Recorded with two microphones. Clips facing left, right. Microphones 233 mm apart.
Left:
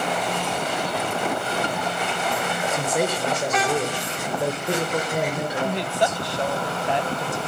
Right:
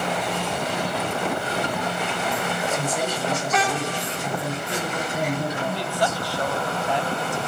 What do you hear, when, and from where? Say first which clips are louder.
2.7 s a man speaking: left 2 dB; 70° left (ahead or behind), 6 m
5.6 s a woman speaking: left 2 dB; 20° left (ahead or behind), 1.2 m